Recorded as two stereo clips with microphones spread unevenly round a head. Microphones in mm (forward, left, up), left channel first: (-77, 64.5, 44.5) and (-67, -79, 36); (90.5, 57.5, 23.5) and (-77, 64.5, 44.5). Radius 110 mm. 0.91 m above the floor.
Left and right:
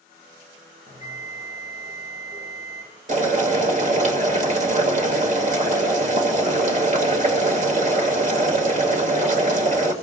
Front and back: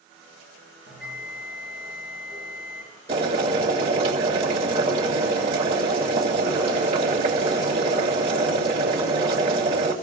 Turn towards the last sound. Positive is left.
turn(degrees=-120)